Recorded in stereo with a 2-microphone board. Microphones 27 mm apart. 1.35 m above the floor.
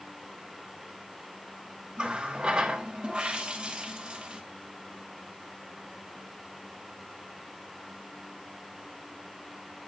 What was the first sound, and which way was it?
A running tap, 40° right (ahead or behind).